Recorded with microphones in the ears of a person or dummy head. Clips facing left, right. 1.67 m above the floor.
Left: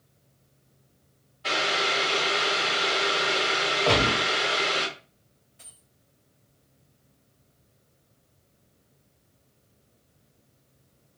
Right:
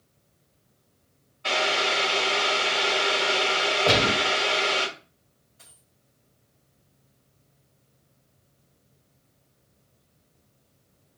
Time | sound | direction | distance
1.4 | boiling | 15° left (ahead or behind) | 1.8 m
3.9 | a gunshot | 15° right (ahead or behind) | 1.0 m
5.6 | a dropped coin | 30° left (ahead or behind) | 1.7 m